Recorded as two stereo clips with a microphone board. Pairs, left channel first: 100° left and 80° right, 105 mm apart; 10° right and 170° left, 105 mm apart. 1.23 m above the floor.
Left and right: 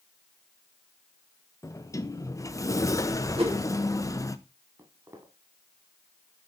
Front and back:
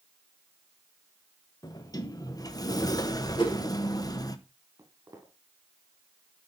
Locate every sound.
1.6 s a sliding door: 40° left, 0.8 m
3.4 s a whoosh: 50° right, 3 m
4.8 s footsteps: 130° right, 2.5 m